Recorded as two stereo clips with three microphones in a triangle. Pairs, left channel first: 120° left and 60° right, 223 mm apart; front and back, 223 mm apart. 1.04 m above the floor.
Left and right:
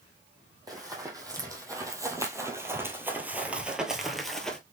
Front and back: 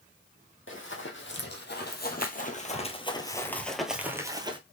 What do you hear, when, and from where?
0.7 s running footsteps: 10° left, 1.9 m; by 4.6 s 155° right, 1.1 m